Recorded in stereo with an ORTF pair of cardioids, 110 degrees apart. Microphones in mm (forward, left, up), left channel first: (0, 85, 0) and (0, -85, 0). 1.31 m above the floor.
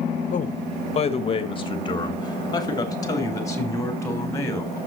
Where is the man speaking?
50° left, 1.2 m; by 4.8 s 15° left, 4 m.